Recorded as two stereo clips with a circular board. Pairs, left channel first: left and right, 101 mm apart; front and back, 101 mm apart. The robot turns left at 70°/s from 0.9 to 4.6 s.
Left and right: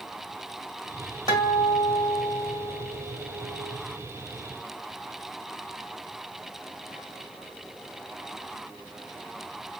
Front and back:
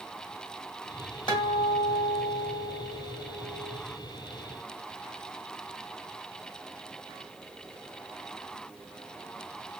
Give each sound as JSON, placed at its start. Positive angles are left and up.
{"t": 1.3, "sound": "a guitar", "azimuth_deg": 40, "distance_m": 1.4}